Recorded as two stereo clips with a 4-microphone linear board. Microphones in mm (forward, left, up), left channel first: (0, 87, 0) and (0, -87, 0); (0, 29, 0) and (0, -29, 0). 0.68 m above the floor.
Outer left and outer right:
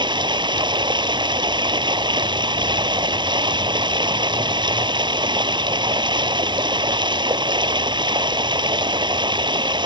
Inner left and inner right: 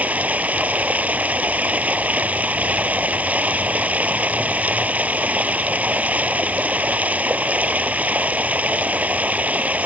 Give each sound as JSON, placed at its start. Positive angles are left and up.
{"t": 0.0, "sound": "running water", "side_deg": -25}